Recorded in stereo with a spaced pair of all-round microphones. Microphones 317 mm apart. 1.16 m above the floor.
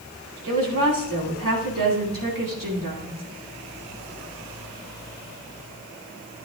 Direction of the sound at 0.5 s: 90° right.